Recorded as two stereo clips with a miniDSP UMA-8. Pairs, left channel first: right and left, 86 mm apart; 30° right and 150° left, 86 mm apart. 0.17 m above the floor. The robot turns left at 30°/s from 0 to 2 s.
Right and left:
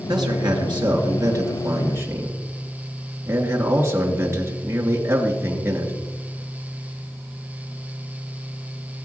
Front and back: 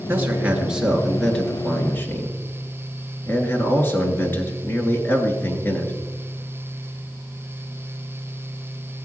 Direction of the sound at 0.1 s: 90° left.